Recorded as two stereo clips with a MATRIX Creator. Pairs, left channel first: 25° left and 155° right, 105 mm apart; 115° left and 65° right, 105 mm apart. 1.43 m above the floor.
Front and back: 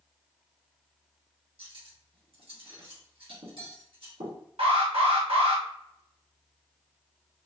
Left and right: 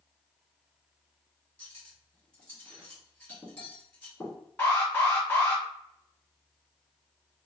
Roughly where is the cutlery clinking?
Behind.